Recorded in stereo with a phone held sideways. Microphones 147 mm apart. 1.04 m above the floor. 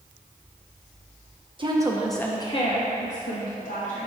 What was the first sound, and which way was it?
A woman speaking, 35° right (ahead or behind).